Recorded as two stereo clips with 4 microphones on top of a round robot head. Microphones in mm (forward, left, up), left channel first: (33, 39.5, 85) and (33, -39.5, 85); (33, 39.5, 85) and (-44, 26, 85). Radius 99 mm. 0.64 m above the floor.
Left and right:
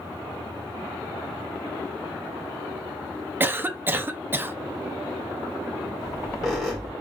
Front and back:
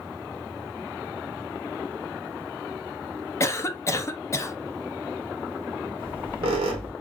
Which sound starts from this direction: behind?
A squeak, at 6.0 s.